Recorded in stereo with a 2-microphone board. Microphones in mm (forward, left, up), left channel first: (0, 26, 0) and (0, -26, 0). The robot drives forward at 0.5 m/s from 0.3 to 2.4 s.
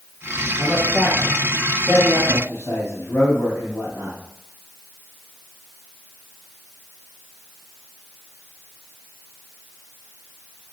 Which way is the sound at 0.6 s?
65° left (ahead or behind).